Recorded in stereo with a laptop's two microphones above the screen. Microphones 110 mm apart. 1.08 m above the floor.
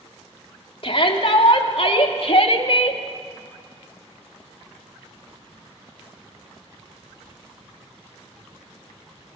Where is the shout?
55° left (ahead or behind), 3 m.